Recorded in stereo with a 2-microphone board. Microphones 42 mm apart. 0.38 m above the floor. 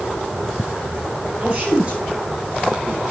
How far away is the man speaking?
About 8.5 m.